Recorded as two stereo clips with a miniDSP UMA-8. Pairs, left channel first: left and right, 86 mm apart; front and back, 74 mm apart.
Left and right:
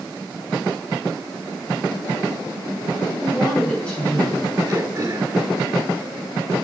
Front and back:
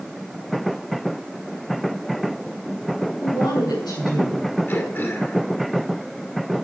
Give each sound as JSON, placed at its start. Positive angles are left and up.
{"t": 3.2, "sound": "a woman speaking", "azimuth_deg": 10, "distance_m": 8.0}
{"t": 4.7, "sound": "throat clearing", "azimuth_deg": -55, "distance_m": 2.0}